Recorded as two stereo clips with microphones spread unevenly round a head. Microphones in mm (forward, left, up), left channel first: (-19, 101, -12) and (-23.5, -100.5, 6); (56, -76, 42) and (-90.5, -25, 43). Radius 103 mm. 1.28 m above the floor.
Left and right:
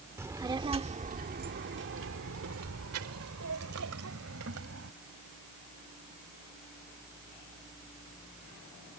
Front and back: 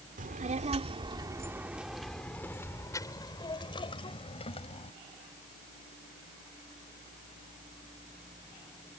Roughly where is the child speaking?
Behind.